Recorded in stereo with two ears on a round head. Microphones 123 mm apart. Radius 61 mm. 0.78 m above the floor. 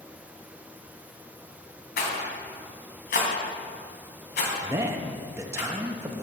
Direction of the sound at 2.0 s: 75° left (ahead or behind).